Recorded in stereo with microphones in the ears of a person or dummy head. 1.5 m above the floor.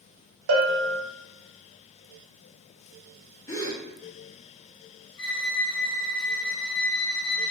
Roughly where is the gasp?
Centre.